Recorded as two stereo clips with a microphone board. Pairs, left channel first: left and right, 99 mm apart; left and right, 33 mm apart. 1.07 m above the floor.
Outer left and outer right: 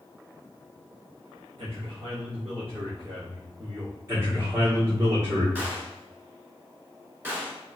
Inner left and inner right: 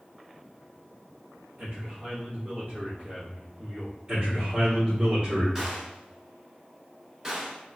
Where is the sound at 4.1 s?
35° right (ahead or behind), 1.2 m.